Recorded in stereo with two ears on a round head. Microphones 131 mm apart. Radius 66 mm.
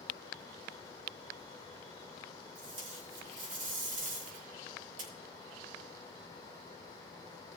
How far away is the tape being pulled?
About 3.5 m.